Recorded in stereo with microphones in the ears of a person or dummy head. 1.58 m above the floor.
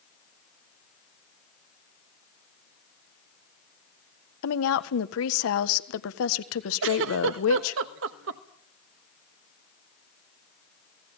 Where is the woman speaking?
75° left (ahead or behind), 1.6 m.